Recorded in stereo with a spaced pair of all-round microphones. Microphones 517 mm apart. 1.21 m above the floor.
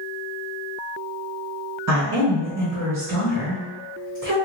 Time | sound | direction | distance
1.9 | a woman speaking | 35° right (ahead or behind) | 1.3 m